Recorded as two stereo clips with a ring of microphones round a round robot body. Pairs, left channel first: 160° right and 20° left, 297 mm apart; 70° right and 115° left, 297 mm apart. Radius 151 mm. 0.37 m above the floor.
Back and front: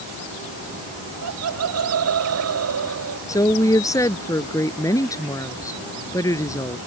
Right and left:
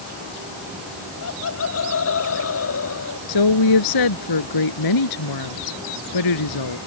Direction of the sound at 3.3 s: 80° right.